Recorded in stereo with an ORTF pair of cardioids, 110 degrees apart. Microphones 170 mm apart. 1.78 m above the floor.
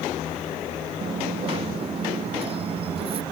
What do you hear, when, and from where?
1.0 s a dropped coin: 35° right